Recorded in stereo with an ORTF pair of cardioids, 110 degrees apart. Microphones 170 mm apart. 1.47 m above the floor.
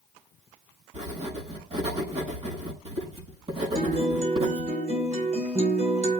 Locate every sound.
0.9 s writing: 40° right, 6 m
3.8 s a guitar: 40° right, 4 m